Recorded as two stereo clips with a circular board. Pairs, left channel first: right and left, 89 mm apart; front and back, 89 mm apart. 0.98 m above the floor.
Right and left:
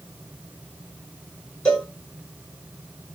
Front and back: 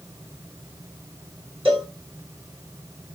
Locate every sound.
1.6 s a cowbell: 165° right, 3.5 m